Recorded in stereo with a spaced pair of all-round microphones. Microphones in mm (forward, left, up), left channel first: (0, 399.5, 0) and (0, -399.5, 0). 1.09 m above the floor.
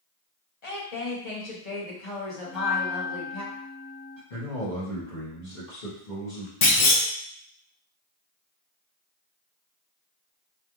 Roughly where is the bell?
Left.